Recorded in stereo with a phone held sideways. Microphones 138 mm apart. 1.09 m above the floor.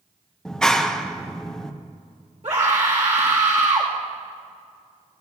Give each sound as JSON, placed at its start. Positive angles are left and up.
{"t": 0.5, "sound": "a clap", "side_deg": 5, "distance_m": 0.9}
{"t": 2.4, "sound": "a scream", "side_deg": -55, "distance_m": 1.8}